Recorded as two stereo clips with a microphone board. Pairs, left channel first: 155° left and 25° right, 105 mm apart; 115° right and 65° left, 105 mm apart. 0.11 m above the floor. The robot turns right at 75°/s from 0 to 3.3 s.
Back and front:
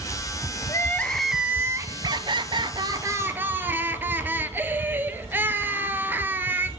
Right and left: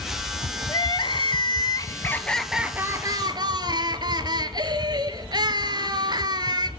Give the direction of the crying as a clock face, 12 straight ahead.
5 o'clock.